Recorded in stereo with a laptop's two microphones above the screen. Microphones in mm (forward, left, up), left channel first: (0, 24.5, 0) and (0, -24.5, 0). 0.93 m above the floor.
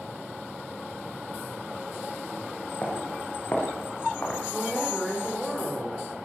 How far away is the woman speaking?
About 2.5 m.